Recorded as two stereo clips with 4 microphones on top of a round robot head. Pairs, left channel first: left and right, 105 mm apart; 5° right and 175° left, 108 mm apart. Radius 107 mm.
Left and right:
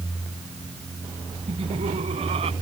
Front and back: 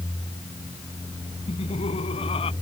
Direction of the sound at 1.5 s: 50° right.